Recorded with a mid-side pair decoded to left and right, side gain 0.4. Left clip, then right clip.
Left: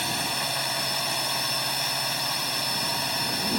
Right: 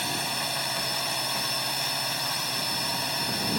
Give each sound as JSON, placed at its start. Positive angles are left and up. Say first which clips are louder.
{"t": 0.0, "sound": "a drone", "louder": "left 2 dB", "azimuth_deg": 15}